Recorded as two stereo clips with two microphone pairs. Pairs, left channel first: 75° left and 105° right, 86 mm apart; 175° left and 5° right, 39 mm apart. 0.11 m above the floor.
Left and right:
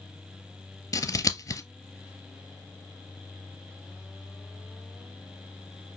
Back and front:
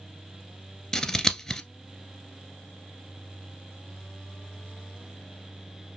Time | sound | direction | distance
0.9 | scissors | 105° left | 0.6 m